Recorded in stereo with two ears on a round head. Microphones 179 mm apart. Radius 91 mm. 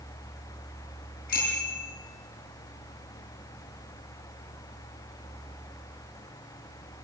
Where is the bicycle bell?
45° left (ahead or behind), 8.5 m.